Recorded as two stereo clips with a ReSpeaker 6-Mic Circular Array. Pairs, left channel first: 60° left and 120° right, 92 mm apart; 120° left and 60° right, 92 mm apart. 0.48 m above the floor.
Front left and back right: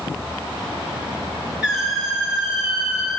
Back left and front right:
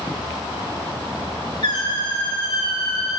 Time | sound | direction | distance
1.6 | a squeak | 160° left | 4 m